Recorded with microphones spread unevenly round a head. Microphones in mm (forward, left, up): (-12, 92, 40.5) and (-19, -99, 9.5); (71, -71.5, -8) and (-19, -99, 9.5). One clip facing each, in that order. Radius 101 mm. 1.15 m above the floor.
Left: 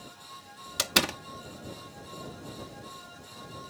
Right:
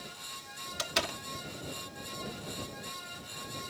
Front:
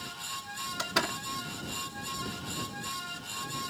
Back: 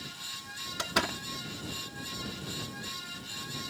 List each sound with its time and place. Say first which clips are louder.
0.8 s a door slam: left 5 dB, back 1 dB; 110° left